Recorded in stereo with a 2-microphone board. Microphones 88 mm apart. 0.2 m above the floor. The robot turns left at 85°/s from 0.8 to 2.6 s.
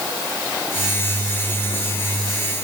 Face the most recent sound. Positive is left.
No sound to turn to.